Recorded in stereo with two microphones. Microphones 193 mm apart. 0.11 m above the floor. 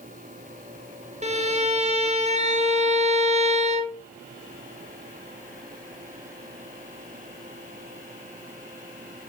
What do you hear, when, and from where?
1.2 s a violin: 35° right (ahead or behind), 1.1 m